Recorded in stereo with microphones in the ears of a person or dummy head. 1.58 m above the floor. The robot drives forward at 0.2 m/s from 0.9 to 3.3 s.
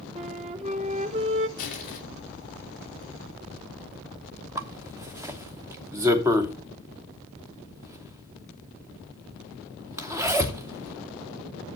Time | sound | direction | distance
0.1 | a flute | 35° right (ahead or behind) | 0.9 m
1.6 | crushing | 45° left (ahead or behind) | 3.5 m
4.5 | a zipper | 15° right (ahead or behind) | 0.9 m